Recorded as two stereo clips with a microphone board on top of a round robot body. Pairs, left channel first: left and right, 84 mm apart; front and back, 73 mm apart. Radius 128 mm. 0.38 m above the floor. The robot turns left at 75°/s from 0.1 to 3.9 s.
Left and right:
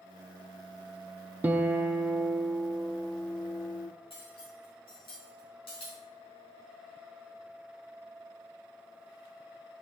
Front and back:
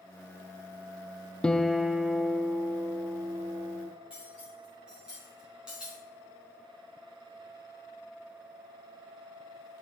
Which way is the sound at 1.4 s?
60° right.